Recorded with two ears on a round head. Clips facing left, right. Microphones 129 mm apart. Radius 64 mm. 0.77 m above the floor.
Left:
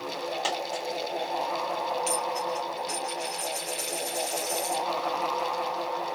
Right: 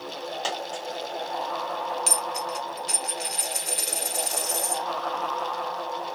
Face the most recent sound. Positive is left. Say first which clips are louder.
# left 1 dB
turn(degrees=-60)  # may be behind; listen again after turning